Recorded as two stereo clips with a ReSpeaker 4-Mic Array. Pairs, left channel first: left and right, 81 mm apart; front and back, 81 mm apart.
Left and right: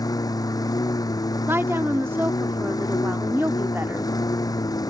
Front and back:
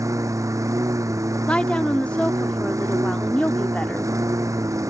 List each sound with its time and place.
0.0 s a lawn mower: 130° left
1.5 s a woman speaking: 65° right